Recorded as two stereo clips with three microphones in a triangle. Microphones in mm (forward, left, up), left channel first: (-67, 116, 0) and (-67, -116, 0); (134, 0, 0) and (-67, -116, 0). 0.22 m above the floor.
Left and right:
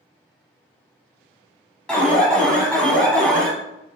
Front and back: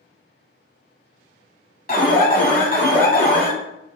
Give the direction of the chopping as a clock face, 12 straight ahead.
I don't hear chopping.